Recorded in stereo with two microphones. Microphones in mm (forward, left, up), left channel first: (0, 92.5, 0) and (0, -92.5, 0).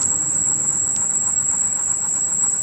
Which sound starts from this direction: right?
An insect, at 0.0 s.